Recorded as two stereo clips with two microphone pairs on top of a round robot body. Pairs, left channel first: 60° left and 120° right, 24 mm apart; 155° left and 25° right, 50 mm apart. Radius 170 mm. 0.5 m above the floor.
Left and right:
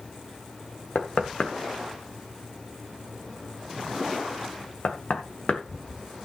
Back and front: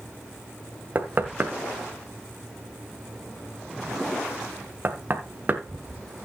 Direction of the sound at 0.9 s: 25° left.